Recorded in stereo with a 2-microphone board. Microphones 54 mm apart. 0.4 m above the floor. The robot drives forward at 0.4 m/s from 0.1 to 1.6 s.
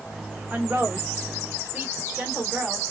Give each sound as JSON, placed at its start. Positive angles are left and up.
{"t": 0.5, "sound": "a woman speaking", "side_deg": -25, "distance_m": 1.3}